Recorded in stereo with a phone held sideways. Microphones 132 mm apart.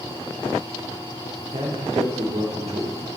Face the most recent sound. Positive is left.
turn(degrees=-55)  # may be behind; listen again after turning